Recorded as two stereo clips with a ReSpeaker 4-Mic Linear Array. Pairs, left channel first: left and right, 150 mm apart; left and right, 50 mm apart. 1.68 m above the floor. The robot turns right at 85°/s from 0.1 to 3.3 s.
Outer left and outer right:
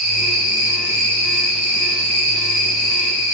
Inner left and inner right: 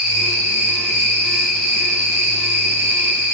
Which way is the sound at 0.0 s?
60° left.